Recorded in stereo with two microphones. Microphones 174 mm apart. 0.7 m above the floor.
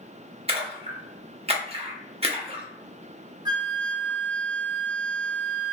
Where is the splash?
35° right (ahead or behind), 0.7 m.